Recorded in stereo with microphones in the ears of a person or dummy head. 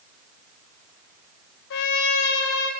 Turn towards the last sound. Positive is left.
turn(degrees=60)  # may be behind; listen again after turning